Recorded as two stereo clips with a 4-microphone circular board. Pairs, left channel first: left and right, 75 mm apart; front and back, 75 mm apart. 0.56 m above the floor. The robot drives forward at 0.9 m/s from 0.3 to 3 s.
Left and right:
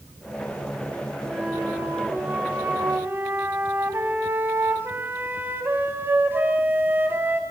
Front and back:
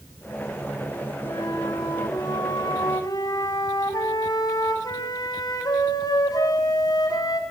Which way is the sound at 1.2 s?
15° right.